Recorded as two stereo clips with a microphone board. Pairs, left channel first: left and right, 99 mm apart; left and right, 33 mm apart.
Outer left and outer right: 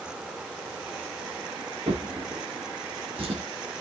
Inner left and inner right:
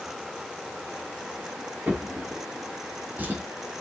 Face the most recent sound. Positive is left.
turn(degrees=-70)  # may be behind; listen again after turning